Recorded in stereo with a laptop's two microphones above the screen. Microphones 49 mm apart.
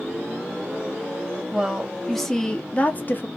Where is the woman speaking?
15° right (ahead or behind), 1.1 m; by 3.3 s 40° left (ahead or behind), 1.0 m.